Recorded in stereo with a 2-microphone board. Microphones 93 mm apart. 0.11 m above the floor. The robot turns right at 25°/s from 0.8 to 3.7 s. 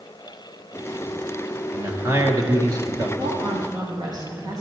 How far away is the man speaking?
About 1.8 m.